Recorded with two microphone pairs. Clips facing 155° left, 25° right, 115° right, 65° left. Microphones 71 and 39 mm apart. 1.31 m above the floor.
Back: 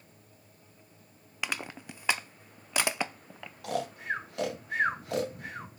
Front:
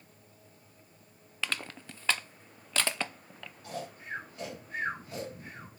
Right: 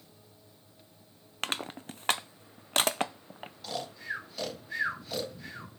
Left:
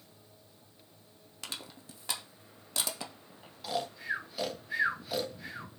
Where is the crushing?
130° right, 0.6 m.